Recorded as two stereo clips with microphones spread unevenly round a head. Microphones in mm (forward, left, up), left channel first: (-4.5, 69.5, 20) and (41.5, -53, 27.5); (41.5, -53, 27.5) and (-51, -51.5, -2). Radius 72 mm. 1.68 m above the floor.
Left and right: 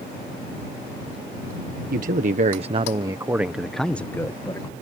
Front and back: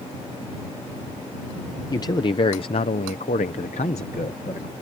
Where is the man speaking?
50° right; by 4.7 s 45° left.